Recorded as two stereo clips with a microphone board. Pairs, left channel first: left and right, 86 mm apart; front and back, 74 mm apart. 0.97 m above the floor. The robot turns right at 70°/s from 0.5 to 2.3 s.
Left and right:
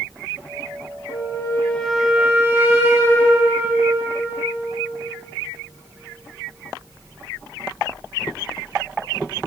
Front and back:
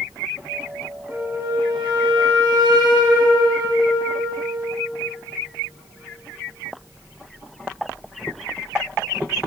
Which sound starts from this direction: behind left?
A flute, at 1.1 s.